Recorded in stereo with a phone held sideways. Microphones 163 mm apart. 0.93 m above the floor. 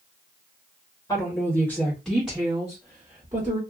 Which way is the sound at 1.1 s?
20° left (ahead or behind).